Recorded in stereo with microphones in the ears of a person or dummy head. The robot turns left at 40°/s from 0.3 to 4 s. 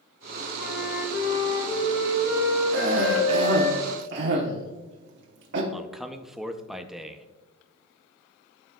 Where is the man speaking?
Centre (ahead or behind), 0.6 m.